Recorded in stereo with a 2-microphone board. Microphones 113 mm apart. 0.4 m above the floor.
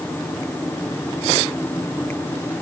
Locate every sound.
Only background noise.